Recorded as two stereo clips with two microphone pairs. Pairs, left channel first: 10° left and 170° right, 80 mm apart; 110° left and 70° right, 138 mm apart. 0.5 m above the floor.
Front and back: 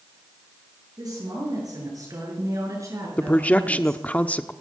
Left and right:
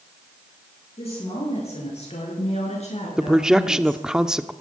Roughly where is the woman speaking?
Behind left.